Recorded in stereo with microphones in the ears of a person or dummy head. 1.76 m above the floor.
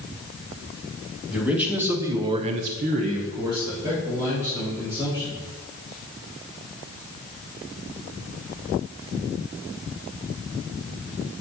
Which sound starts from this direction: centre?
A man speaking, at 1.3 s.